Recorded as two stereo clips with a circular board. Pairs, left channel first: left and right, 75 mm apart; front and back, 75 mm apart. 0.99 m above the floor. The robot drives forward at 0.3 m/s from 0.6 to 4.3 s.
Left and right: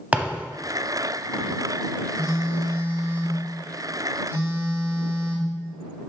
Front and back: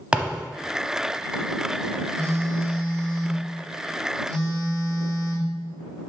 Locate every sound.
0.1 s a thud: 125° right, 0.8 m
2.2 s a phone buzzing: 130° right, 1.9 m; by 5.5 s 145° right, 2.5 m